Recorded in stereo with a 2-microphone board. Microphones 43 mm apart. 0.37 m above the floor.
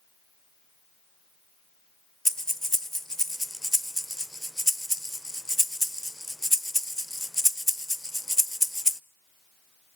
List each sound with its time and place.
2.2 s breathing: 10° left (ahead or behind), 0.6 m